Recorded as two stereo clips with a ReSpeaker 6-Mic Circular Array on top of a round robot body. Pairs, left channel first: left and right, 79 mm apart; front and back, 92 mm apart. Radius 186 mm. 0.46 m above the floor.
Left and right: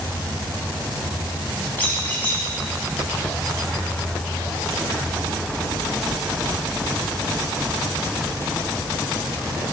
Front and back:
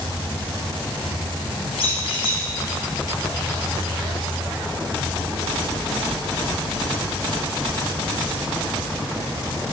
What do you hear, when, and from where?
0.0 s an insect: 30° left, 3 m
1.8 s a squeak: 20° left, 1.6 m